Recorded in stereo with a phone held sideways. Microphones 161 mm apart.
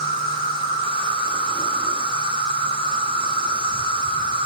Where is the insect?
30° left (ahead or behind), 3.5 m.